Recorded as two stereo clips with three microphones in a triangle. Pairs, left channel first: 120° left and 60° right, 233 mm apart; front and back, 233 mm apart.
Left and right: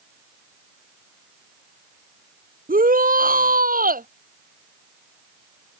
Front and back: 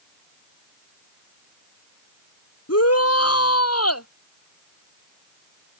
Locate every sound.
2.7 s a shout: 5° right